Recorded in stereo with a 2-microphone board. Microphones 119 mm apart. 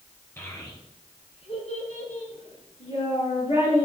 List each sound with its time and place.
0.4 s a child speaking: 20° left (ahead or behind), 2.5 m; by 3.9 s 55° left (ahead or behind), 4 m